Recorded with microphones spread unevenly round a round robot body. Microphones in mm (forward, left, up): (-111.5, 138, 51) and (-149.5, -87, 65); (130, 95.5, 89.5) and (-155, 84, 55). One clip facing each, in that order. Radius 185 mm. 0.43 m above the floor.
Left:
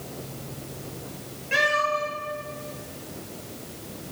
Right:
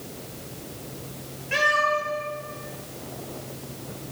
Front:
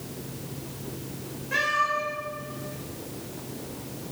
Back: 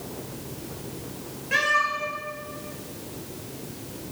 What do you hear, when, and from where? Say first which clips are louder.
1.5 s a cat meowing: even, back 1 dB; 130° left, 4 m